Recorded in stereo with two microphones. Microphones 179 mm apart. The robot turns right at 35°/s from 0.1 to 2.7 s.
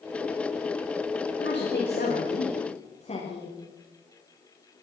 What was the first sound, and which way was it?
A woman speaking, 95° left.